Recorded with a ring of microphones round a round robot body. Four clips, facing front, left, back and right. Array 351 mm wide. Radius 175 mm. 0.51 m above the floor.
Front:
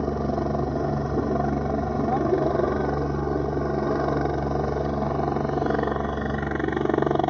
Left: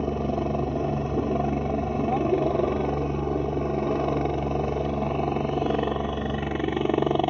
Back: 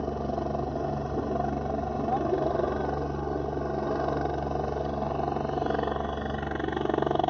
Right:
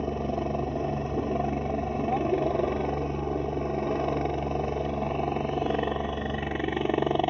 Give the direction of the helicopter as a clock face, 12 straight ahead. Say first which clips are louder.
Left 3 dB, front 5 dB; 11 o'clock.